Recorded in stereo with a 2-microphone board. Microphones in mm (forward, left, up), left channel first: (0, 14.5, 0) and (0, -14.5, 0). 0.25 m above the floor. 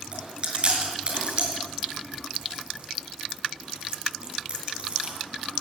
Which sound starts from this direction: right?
Chewing, at 0.1 s.